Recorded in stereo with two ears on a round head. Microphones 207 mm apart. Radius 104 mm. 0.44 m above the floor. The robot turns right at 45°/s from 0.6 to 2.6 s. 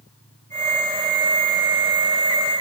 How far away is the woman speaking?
No woman speaking in this recording.